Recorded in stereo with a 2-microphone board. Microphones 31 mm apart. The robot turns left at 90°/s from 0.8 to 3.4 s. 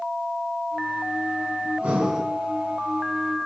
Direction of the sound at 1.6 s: 125° right.